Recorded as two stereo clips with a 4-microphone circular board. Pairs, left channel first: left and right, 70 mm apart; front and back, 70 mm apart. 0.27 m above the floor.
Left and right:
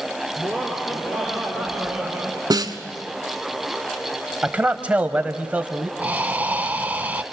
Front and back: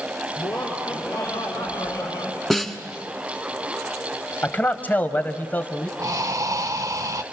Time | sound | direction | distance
0.4 | laughter | 10° left | 4.5 m
2.5 | a snare drum | 85° right | 1.3 m
4.4 | a man speaking | 40° right | 1.3 m
6.0 | breathing | 155° right | 0.8 m